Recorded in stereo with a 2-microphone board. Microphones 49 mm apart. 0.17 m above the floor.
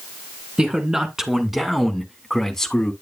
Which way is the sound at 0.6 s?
15° right (ahead or behind).